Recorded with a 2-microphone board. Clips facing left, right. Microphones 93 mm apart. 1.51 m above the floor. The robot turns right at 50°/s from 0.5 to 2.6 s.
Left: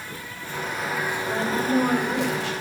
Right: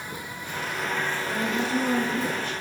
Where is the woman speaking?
15° left, 7 m; by 2.5 s 80° left, 7 m.